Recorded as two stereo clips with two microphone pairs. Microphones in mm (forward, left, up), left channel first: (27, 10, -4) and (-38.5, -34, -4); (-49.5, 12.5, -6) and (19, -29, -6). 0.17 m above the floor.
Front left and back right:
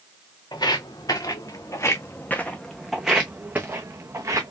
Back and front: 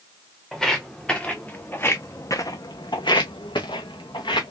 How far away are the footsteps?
About 1.4 m.